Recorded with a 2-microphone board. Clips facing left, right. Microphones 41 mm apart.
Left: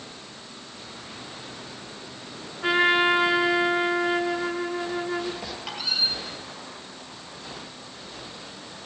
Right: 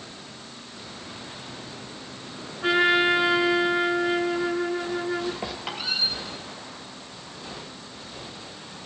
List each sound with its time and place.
2.6 s a trumpet: 5° left (ahead or behind), 0.6 m
5.4 s a squeak: 20° right (ahead or behind), 1.8 m